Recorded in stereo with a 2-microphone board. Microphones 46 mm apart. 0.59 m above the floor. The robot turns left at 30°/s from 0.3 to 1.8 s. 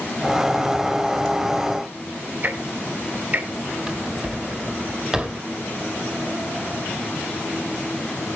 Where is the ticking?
35° right (ahead or behind), 2 m.